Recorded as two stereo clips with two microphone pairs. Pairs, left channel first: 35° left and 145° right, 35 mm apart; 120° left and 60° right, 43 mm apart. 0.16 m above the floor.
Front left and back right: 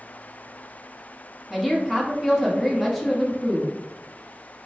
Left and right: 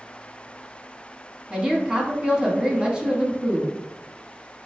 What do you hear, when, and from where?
1.5 s a woman speaking: 60° right, 1.2 m